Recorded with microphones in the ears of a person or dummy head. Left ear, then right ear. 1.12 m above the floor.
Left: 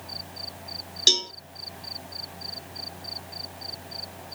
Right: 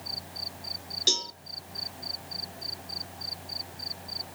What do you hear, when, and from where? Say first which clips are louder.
1.1 s a cowbell: left 6 dB; 30° left (ahead or behind), 0.7 m